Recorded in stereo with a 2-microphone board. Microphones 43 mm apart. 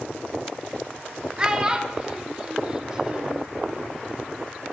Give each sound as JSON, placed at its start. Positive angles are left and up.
{"t": 1.4, "sound": "a child speaking", "side_deg": -15, "distance_m": 0.6}